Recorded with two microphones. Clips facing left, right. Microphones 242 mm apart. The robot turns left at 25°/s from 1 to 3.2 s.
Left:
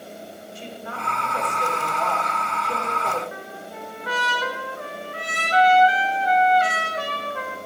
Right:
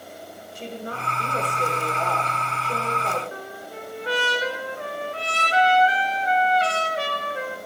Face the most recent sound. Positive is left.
turn(degrees=-30)  # may be behind; listen again after turning